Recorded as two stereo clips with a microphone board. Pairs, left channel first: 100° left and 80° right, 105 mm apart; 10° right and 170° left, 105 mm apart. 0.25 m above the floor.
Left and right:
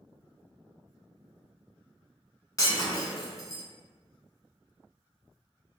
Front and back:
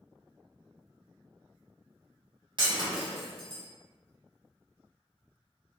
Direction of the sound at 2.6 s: 145° left.